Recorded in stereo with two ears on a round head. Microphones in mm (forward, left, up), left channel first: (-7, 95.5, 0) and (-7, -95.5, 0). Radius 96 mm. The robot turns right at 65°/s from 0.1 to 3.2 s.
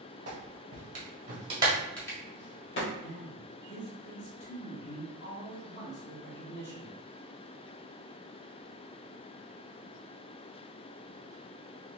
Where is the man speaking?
60° left (ahead or behind), 1.6 m; by 7.0 s 50° left (ahead or behind), 1.6 m.